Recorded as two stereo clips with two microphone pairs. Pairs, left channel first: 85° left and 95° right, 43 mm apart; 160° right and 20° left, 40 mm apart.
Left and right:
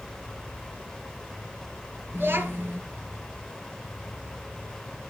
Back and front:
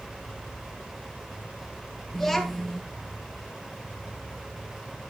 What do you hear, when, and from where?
2.1 s a child speaking: 70° right, 1.7 m